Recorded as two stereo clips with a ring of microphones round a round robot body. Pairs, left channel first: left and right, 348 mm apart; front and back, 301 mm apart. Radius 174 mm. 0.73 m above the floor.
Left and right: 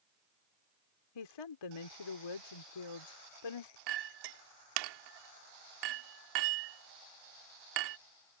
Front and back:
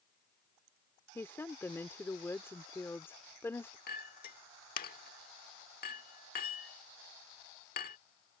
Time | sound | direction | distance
1.1 | a woman speaking | 80° left | ?
3.9 | a clink | 65° right | ?